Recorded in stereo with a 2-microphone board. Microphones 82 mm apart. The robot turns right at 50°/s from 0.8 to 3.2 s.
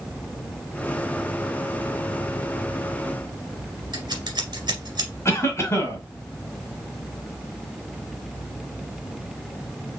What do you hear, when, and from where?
3.9 s scissors: 60° right (ahead or behind), 1.9 m
5.2 s a cough: 35° left (ahead or behind), 2 m